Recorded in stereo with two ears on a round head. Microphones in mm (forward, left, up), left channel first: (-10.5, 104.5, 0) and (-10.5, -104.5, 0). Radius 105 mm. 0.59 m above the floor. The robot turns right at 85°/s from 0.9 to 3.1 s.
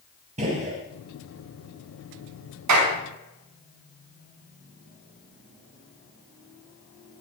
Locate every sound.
0.4 s a gunshot: 30° right (ahead or behind), 6 m
2.7 s a clap: 80° right, 6 m; by 2.9 s 65° right (ahead or behind), 6 m